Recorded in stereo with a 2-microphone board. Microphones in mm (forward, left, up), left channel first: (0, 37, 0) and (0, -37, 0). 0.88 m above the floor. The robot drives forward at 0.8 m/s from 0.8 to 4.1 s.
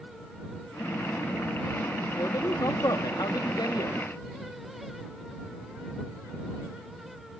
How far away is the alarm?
No alarm in this recording.